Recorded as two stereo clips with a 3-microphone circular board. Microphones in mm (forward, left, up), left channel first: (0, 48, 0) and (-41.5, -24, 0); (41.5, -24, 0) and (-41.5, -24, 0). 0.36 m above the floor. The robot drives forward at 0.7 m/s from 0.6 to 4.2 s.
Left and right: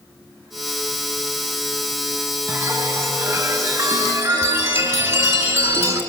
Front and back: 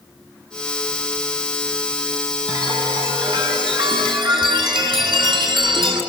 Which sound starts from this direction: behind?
A chime, at 2.5 s.